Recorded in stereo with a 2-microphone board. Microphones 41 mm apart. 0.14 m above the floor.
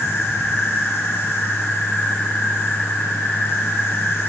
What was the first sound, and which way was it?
An insect, 70° left (ahead or behind).